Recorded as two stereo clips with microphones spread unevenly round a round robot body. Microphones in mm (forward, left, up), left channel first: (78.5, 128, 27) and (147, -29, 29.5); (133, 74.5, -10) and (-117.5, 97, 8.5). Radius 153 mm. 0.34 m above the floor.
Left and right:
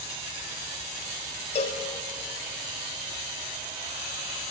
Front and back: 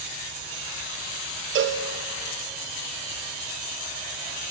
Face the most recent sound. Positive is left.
turn(degrees=150)